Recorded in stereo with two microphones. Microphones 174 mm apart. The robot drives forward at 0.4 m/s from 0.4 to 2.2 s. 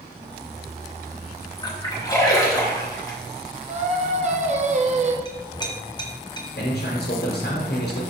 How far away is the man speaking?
About 0.9 m.